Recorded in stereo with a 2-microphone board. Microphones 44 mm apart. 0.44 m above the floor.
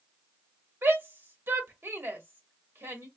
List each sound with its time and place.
0.8 s a shout: 55° right (ahead or behind), 2 m